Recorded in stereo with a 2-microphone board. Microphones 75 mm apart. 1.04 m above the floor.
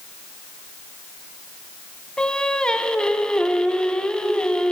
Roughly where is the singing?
Centre.